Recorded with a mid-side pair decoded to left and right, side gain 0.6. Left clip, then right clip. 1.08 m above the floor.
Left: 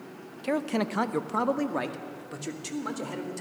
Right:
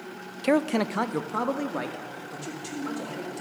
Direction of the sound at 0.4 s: 40° right.